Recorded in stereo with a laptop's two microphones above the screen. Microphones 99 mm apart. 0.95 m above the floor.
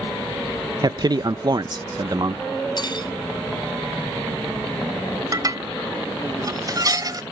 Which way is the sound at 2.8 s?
50° left (ahead or behind).